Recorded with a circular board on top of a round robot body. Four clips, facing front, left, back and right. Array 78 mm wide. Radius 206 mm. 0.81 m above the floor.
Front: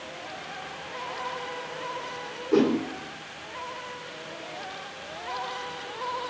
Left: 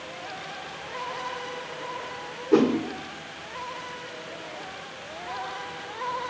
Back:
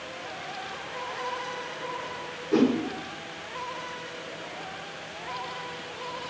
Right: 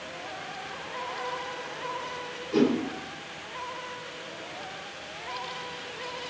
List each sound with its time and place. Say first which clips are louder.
2.5 s a whoosh: left 4 dB, front 1 dB; 80° left, 2.5 m